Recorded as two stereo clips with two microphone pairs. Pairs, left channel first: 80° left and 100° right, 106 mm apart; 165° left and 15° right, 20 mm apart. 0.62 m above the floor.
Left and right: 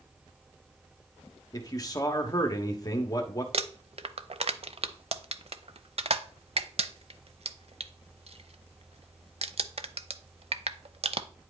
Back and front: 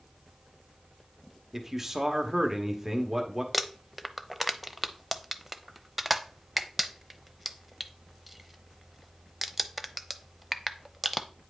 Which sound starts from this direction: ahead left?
A man speaking, at 1.5 s.